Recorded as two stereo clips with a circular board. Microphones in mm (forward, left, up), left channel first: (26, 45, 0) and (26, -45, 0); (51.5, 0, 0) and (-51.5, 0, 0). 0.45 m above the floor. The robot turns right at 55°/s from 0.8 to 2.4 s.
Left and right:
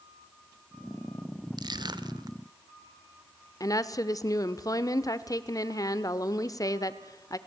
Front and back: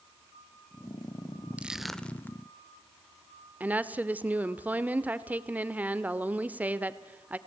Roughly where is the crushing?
Right.